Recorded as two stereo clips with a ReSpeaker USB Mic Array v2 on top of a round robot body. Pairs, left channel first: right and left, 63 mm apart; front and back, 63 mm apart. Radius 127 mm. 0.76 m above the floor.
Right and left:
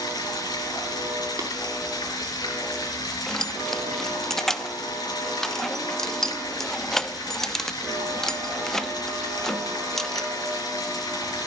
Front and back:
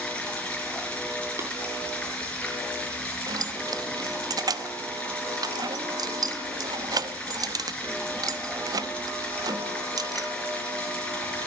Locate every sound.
0.0 s running water: 75° right, 3.5 m
1.4 s tapping: 130° left, 4.5 m
3.3 s keys jangling: 175° right, 0.9 m